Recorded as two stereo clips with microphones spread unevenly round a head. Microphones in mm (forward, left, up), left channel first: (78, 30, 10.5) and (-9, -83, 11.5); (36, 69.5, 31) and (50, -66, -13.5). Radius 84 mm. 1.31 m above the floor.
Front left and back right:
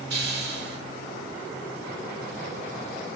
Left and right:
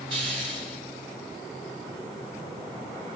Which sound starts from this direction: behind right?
A hiss, at 0.1 s.